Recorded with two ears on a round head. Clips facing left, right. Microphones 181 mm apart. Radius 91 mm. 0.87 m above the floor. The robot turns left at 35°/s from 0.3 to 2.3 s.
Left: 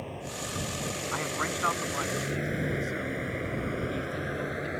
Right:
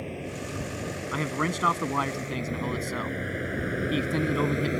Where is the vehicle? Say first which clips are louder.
Right 3 dB; 25° right (ahead or behind); by 4.8 s 40° right (ahead or behind).